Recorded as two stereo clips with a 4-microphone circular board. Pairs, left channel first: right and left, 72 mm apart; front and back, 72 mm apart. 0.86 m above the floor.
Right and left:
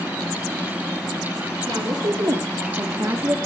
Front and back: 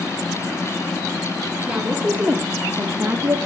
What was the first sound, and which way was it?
A woman speaking, 110° left.